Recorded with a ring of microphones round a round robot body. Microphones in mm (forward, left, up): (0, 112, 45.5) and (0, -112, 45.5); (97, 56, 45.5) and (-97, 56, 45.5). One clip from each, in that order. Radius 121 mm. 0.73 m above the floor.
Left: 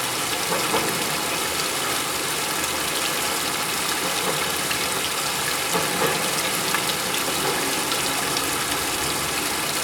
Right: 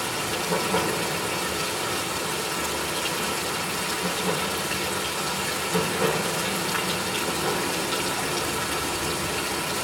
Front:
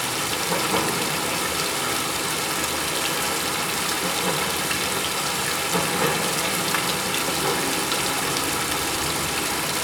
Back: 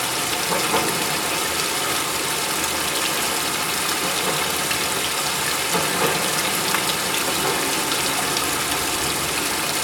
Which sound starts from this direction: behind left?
Running water, at 0.0 s.